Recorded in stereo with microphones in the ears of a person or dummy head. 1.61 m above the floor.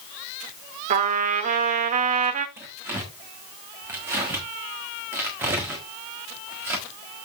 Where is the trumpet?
45° right (ahead or behind), 0.9 m.